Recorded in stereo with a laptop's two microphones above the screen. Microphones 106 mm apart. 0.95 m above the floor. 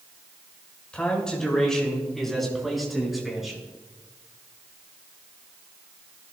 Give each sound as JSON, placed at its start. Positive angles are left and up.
{"t": 0.9, "sound": "a man speaking", "side_deg": 10, "distance_m": 5.0}